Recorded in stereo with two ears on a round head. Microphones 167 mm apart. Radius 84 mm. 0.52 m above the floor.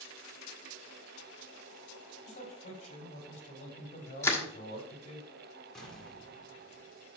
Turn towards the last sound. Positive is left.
turn(degrees=5)  # may be behind; listen again after turning